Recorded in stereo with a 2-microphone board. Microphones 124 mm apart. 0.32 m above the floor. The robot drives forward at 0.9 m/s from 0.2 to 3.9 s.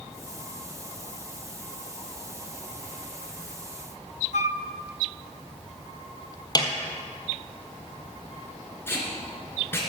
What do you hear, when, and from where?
4.3 s a flute: 70° left (ahead or behind), 0.5 m
6.5 s a snare drum: 30° left (ahead or behind), 1.7 m
8.9 s tape being pulled: 20° left (ahead or behind), 3 m